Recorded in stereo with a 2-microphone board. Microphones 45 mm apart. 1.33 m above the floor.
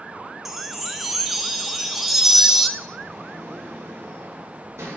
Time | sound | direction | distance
0.5 | a chime | 5° right (ahead or behind) | 0.5 m
2.8 | a sliding door | 80° right | 1.8 m